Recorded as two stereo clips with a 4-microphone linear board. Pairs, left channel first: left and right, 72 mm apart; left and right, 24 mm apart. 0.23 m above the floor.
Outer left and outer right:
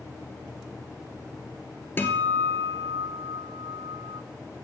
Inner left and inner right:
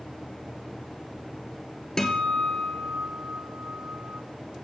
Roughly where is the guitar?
Left.